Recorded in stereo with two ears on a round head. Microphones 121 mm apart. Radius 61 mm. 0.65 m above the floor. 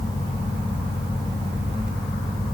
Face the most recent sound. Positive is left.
No sound to turn to.